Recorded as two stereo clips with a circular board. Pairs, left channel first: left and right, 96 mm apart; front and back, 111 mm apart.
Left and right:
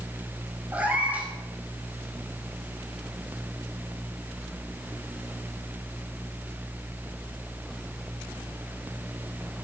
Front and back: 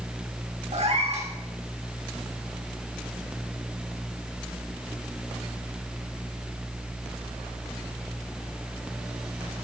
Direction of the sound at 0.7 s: 165° right.